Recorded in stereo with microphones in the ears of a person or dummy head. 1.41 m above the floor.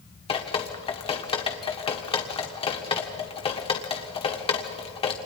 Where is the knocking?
No knocking in this recording.